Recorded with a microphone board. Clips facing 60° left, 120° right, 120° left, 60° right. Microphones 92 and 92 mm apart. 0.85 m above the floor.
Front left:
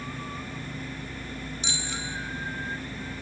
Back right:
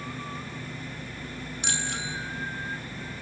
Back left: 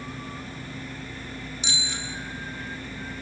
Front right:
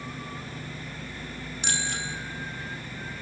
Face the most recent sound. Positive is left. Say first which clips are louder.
# back right 5 dB, front right 5 dB
turn(degrees=-90)